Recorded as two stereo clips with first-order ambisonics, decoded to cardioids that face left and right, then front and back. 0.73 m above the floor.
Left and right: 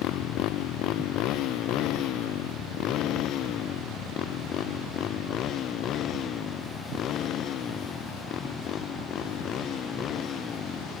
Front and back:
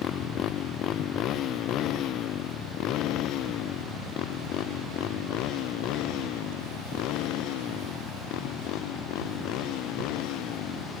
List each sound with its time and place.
0.0 s a motorcycle: 50° left; by 11.0 s 30° left